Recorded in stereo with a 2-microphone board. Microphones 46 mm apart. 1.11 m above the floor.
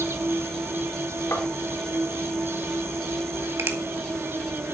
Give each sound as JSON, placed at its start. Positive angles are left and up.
{"t": 0.0, "sound": "an insect", "side_deg": -70, "distance_m": 1.1}
{"t": 1.3, "sound": "tapping", "side_deg": 55, "distance_m": 3.0}
{"t": 3.6, "sound": "a finger snap", "side_deg": -60, "distance_m": 1.8}